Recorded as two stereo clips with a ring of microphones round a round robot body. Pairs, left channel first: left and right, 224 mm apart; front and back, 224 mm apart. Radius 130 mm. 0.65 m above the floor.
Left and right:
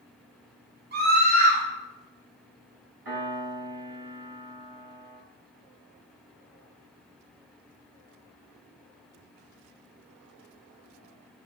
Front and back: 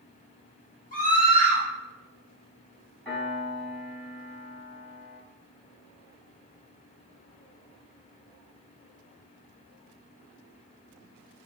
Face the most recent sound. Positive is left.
turn(degrees=-85)